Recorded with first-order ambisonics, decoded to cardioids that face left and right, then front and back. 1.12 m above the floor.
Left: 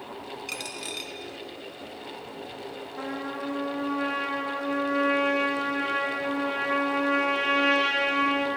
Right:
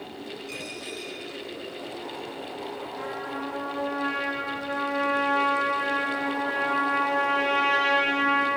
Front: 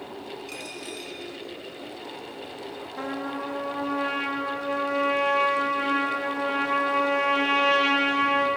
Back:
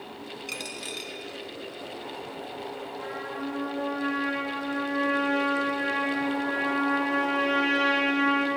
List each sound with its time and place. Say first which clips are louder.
0.5 s a dropped coin: left 3 dB, back 6 dB; 125° left, 0.8 m
3.0 s a trumpet: left 1 dB, front 5 dB; 20° left, 1.8 m